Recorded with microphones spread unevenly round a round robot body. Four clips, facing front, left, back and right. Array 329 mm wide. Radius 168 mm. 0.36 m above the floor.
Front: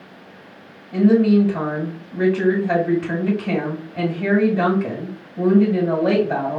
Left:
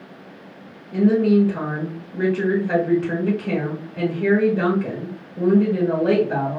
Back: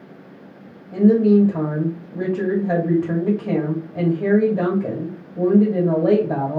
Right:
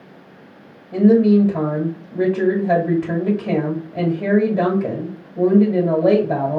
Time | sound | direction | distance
0.9 | a woman speaking | 105° right | 1.9 m